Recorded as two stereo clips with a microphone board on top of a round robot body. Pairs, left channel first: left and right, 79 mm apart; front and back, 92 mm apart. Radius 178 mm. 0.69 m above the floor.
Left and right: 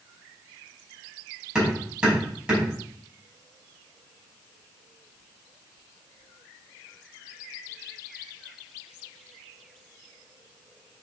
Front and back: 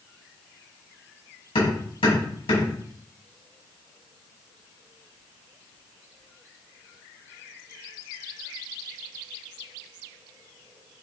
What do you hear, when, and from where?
1.6 s hammering: 10° right, 4.5 m